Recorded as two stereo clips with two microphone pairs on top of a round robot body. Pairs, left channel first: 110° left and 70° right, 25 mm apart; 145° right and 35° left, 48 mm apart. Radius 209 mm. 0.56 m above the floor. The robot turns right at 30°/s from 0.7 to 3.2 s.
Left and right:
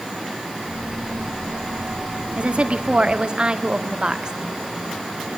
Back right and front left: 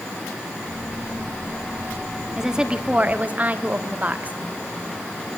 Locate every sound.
2.4 s a woman speaking: 45° right, 2 m; by 4.3 s 20° right, 2 m